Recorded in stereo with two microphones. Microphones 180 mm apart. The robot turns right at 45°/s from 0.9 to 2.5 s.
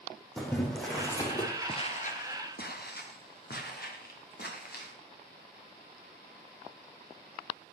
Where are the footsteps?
30° left (ahead or behind), 1.5 m; by 4.9 s 60° left (ahead or behind), 6 m.